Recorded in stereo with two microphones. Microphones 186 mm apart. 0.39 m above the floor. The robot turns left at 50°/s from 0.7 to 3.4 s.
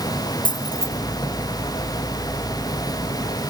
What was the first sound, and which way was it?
Keys jangling, 25° left (ahead or behind).